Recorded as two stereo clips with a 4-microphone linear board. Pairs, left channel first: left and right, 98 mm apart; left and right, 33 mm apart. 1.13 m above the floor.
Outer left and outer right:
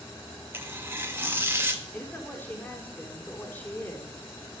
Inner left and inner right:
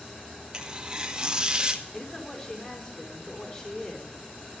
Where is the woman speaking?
20° left (ahead or behind), 4 m.